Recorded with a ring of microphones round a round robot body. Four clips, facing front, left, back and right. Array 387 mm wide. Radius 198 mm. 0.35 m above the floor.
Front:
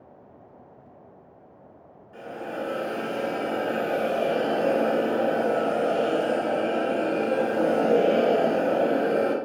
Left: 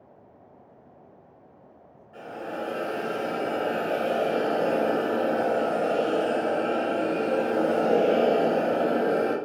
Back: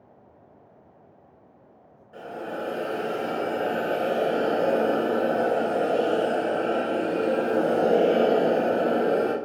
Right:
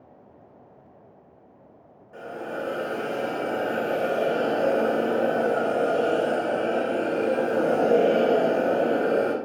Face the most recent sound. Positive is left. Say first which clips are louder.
# right 1 dB, even
turn(degrees=-105)